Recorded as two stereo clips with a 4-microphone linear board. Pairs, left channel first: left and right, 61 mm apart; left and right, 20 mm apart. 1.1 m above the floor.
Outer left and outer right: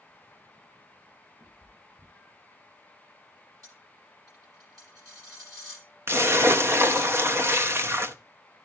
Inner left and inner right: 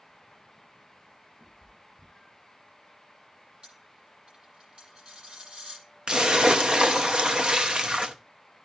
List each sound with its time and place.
1.4 s a cat meowing: 50° right (ahead or behind), 6.5 m
3.6 s a dropped coin: 80° right, 9.5 m
6.1 s a splash: 45° right (ahead or behind), 0.7 m